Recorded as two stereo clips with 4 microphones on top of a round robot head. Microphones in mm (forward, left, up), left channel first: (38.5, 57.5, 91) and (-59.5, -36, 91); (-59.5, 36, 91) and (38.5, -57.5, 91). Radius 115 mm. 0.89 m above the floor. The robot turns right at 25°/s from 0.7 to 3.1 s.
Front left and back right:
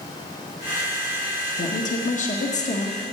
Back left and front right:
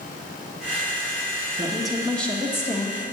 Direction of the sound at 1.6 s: 40° left.